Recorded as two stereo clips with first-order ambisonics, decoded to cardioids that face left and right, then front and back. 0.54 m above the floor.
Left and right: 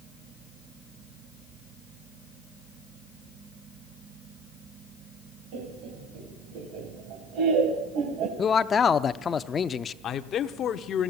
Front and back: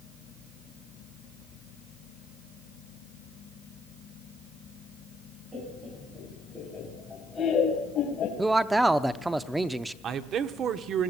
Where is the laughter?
105° right, 3.5 m; by 8.3 s 55° right, 3 m.